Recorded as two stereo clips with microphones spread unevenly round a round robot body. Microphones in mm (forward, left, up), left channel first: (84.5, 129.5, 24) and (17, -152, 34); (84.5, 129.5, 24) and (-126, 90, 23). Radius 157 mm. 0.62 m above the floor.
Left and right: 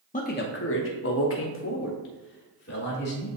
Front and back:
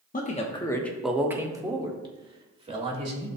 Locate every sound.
0.1 s a man speaking: 30° left, 1.0 m; by 3.3 s 135° left, 3 m